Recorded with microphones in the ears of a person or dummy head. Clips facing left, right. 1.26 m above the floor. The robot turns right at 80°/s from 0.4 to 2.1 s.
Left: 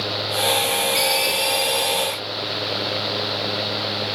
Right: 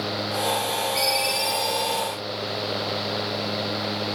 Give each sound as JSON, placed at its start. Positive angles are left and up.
{"t": 0.9, "sound": "a ringtone", "azimuth_deg": 125, "distance_m": 4.0}